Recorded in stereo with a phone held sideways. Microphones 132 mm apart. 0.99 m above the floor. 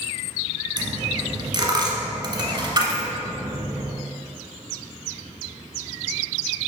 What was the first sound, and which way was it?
A dropped coin, 35° right (ahead or behind).